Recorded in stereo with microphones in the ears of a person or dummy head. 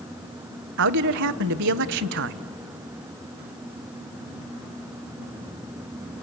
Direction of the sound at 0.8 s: 65° right (ahead or behind).